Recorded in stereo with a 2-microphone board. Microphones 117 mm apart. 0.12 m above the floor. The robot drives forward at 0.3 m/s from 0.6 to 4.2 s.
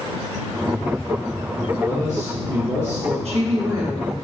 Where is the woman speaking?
65° right (ahead or behind), 3.5 m; by 4.2 s 60° right (ahead or behind), 3.5 m.